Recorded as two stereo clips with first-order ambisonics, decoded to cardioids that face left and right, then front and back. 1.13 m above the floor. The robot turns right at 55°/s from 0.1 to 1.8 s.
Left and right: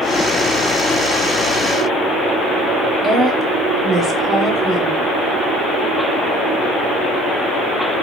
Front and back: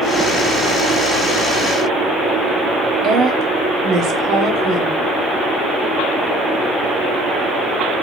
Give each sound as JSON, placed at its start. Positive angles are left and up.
{"t": 3.0, "sound": "a woman speaking", "azimuth_deg": -150, "distance_m": 0.6}